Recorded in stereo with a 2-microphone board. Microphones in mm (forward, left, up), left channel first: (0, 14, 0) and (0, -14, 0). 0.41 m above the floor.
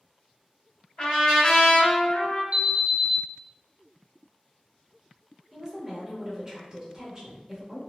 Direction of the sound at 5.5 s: 20° right (ahead or behind).